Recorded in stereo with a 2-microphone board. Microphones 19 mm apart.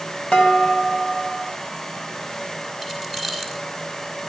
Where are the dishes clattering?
70° left (ahead or behind), 5 m.